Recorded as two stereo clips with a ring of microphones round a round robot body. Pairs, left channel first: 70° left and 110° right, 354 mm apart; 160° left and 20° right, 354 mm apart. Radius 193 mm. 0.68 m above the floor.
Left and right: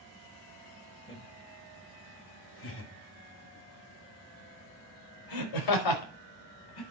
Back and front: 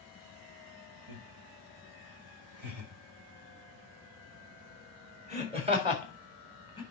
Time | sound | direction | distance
1.1 | laughter | 5° right | 2.5 m